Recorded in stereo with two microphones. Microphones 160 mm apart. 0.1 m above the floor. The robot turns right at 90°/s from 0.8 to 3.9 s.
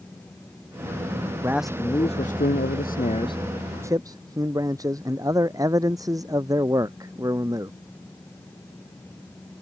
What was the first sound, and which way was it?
A man speaking, 20° right.